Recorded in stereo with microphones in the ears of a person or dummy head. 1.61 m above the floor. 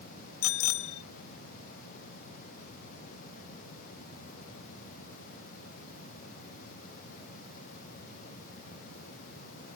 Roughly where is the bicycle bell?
Left.